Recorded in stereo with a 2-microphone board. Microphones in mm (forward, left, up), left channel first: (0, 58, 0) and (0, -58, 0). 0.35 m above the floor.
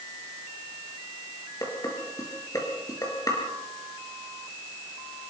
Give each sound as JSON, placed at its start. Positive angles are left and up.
{"t": 1.6, "sound": "dishes clattering", "side_deg": 30, "distance_m": 4.5}